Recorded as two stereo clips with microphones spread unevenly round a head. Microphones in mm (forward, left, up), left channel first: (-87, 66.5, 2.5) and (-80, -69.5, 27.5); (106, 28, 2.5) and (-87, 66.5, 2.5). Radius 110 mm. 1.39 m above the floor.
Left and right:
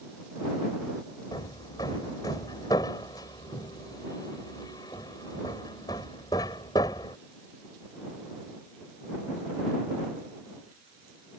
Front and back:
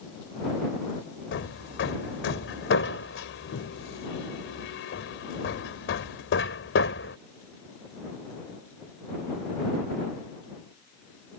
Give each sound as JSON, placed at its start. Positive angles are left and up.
{"t": 1.3, "sound": "hammering", "azimuth_deg": 15}